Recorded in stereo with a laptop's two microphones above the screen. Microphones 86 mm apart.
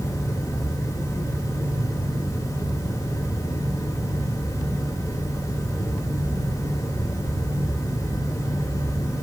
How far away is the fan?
About 1.1 m.